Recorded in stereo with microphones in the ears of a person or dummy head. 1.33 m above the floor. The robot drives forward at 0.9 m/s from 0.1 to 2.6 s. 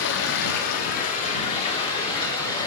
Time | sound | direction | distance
0.0 | running water | 70° left (ahead or behind) | 1.4 m